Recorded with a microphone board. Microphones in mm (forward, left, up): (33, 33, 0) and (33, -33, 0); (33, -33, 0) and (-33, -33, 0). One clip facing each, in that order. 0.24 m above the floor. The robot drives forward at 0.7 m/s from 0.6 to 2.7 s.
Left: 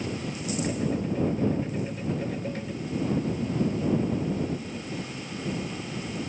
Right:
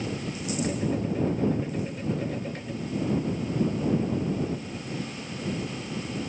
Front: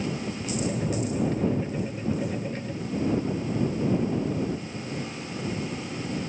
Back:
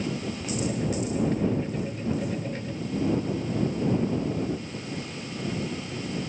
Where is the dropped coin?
No dropped coin in this recording.